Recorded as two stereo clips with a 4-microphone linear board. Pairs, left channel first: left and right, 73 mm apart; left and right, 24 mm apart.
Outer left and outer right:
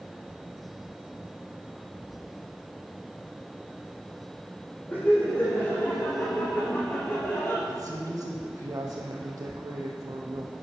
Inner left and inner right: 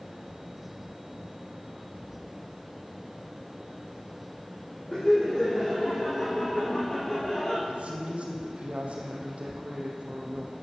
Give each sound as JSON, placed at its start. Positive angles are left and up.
{"t": 4.9, "sound": "laughter", "side_deg": 15, "distance_m": 4.0}
{"t": 7.7, "sound": "a woman speaking", "side_deg": -45, "distance_m": 4.5}